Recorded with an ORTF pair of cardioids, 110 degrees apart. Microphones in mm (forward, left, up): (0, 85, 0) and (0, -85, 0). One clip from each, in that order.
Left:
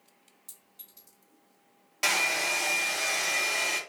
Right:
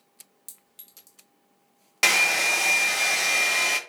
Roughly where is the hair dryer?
Ahead right.